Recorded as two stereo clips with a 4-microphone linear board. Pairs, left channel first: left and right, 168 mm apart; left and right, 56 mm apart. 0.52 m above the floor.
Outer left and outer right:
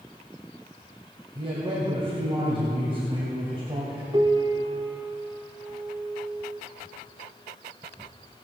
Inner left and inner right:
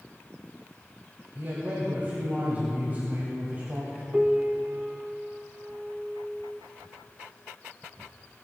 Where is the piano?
30° right (ahead or behind), 0.8 m.